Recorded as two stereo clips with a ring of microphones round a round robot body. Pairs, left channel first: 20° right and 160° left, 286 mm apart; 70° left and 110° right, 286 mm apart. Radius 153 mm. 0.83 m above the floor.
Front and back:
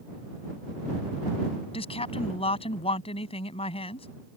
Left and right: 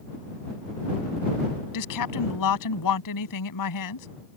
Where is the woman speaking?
50° left.